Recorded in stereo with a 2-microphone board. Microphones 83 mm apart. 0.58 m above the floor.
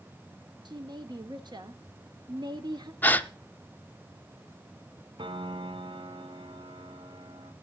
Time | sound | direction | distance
0.7 | a woman speaking | 55° right (ahead or behind) | 1.1 m
3.0 | a gasp | 20° left (ahead or behind) | 0.7 m
5.2 | a piano | 75° right (ahead or behind) | 1.1 m